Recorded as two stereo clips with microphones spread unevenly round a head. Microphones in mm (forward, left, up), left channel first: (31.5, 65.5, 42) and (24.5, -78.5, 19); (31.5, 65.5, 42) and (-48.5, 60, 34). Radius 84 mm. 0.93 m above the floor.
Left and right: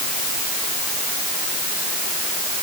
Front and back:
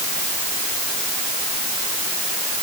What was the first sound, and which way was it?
Only background noise.